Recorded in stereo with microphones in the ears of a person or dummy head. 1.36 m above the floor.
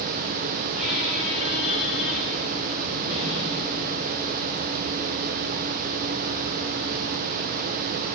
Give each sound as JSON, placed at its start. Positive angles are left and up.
{"t": 0.7, "sound": "a squeak", "side_deg": 0, "distance_m": 3.5}